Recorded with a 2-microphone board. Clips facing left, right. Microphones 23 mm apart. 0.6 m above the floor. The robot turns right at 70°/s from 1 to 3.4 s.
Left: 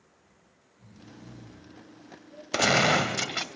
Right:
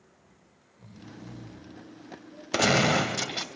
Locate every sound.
0.2 s snoring: 55° right (ahead or behind), 1.8 m; by 2.4 s 40° left (ahead or behind), 1.8 m
2.5 s a gunshot: 5° right, 0.6 m; by 3.5 s 55° left, 0.6 m